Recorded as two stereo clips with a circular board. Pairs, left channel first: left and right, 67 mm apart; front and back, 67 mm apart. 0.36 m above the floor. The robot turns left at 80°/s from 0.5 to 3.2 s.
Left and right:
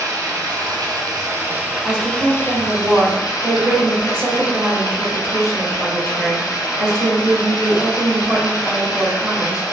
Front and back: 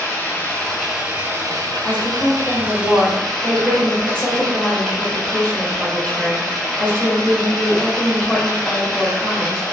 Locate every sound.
0.0 s running water: 60° right, 0.9 m; by 9.7 s 85° left, 0.9 m
1.8 s a woman speaking: 50° left, 1.1 m; by 9.6 s 60° right, 1.1 m